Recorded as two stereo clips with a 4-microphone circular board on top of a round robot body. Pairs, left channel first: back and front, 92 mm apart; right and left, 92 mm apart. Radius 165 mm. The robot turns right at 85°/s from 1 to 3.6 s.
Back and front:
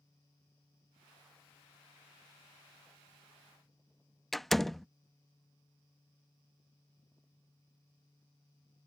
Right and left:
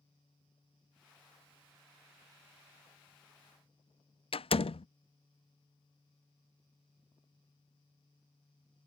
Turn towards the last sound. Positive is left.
turn(degrees=-90)